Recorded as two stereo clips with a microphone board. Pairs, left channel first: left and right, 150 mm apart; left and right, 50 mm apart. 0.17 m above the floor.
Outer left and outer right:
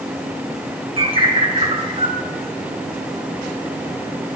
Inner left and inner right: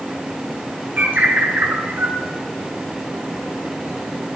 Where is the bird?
40° right (ahead or behind), 2.5 m.